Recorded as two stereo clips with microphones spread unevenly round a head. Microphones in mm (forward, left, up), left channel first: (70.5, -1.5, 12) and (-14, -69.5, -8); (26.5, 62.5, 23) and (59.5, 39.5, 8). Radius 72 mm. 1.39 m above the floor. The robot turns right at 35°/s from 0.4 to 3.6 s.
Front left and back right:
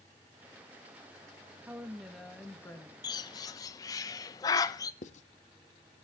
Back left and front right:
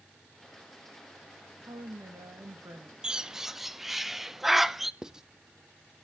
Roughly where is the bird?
Ahead left.